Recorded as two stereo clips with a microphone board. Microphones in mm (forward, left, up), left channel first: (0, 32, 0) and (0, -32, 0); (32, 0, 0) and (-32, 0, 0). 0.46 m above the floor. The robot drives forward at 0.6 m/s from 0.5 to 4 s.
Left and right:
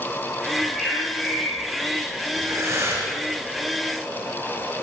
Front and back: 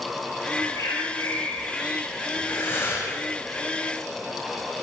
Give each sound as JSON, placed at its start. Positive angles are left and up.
{"t": 0.6, "sound": "a bird", "azimuth_deg": 5, "distance_m": 6.0}
{"t": 2.4, "sound": "breathing", "azimuth_deg": -50, "distance_m": 6.5}